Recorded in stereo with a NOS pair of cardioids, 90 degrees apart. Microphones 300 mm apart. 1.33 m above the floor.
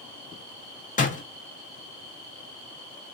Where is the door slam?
25° left, 0.7 m.